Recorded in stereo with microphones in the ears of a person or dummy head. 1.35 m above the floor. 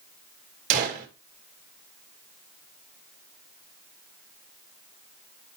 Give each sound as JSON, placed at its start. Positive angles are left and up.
{"t": 0.7, "sound": "a gunshot", "side_deg": -45, "distance_m": 2.0}